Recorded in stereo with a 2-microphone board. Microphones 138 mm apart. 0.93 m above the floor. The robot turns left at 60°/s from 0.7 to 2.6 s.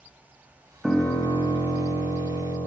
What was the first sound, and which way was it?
A piano, straight behind.